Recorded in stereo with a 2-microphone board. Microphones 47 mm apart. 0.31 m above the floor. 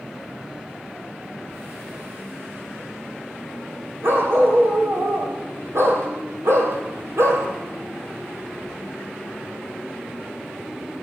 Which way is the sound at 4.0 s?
55° right (ahead or behind).